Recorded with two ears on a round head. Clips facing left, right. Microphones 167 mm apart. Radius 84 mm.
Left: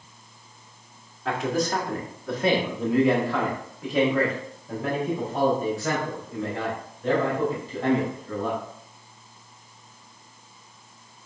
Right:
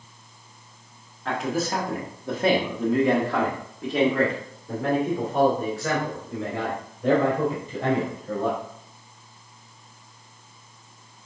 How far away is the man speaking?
About 1.2 m.